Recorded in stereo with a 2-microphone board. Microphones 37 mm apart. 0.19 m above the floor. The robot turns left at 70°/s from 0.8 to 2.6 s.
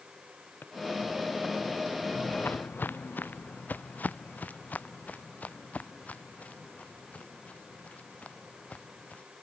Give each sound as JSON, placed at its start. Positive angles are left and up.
{"t": 0.6, "sound": "a drawer", "side_deg": 65}
{"t": 2.1, "sound": "footsteps", "side_deg": 35}